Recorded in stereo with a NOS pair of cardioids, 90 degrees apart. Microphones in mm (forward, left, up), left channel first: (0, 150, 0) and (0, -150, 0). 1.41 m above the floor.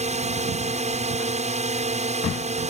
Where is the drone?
20° right.